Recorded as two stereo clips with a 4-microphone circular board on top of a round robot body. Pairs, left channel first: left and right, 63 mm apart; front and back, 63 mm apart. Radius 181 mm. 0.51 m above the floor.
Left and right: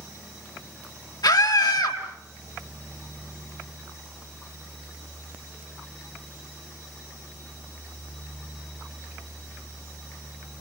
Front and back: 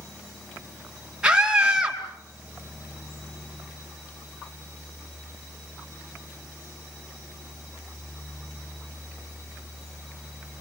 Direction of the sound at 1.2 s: 100° left.